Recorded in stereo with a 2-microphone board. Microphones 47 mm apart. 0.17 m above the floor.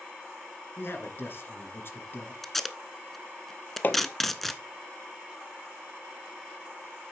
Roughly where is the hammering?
Left.